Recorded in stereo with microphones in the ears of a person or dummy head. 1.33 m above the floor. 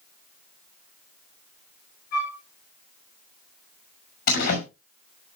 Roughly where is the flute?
Left.